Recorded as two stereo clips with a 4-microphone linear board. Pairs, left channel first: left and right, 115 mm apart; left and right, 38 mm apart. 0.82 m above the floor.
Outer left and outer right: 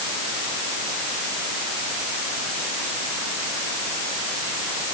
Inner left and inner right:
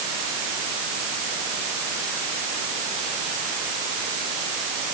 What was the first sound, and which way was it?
Only background noise.